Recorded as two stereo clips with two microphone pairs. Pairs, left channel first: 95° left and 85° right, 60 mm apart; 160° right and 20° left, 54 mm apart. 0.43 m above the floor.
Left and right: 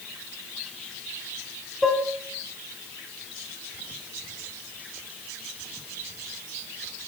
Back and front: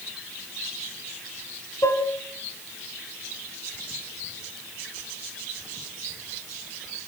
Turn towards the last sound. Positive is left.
turn(degrees=-175)